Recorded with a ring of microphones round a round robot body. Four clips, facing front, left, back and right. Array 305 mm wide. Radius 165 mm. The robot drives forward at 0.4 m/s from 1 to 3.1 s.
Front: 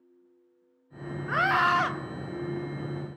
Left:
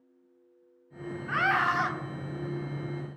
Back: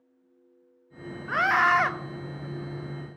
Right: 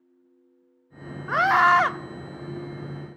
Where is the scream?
90° right, 1.0 m; by 1.9 s 105° right, 1.0 m.